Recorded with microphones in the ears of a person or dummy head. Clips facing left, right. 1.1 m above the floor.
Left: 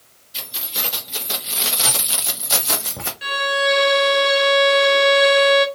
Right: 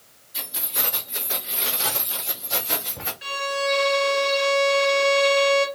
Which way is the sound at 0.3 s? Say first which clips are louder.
Left 1 dB; 35° left (ahead or behind).